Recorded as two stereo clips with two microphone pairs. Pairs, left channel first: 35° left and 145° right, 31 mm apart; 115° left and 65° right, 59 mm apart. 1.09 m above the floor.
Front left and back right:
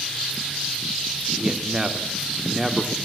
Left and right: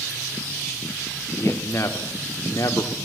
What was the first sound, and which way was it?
A man speaking, 155° left.